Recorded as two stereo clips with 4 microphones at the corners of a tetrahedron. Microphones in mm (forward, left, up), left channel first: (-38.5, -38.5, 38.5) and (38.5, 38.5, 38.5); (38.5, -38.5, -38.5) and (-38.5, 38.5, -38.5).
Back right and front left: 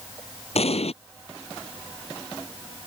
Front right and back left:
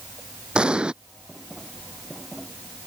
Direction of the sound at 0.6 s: 145° right.